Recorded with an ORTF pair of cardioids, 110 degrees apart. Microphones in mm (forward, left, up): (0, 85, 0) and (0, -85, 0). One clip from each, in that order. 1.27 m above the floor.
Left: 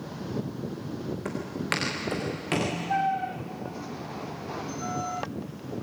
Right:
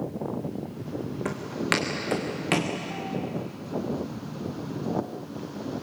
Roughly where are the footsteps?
Ahead.